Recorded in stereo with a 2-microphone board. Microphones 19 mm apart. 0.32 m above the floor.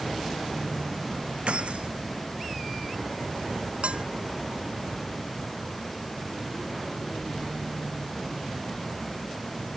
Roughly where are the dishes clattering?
Right.